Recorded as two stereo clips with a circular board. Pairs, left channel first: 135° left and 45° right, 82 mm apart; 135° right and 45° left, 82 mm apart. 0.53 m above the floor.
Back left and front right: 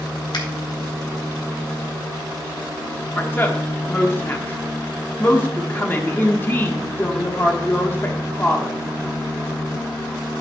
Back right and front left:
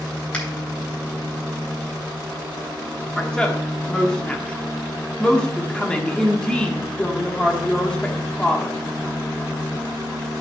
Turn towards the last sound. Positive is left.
turn(degrees=160)